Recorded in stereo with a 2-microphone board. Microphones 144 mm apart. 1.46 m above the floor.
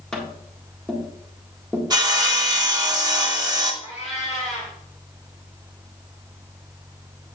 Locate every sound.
0.1 s tapping: 5° left (ahead or behind), 1.6 m
1.9 s sawing: 25° right (ahead or behind), 1.2 m
3.8 s a cat meowing: 50° left (ahead or behind), 3.5 m